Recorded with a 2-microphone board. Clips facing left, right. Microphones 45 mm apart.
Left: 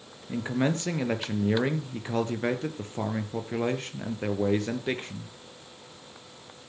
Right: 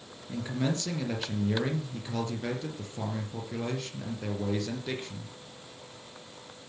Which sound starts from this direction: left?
A man speaking, at 0.3 s.